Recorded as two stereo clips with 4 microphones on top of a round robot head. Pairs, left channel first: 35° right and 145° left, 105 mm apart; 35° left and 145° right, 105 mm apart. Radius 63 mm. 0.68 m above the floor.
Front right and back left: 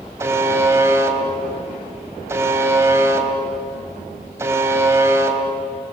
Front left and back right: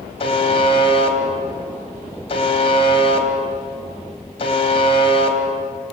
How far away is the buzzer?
About 2.5 m.